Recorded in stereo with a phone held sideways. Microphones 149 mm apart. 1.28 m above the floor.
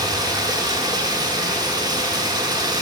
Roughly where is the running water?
Right.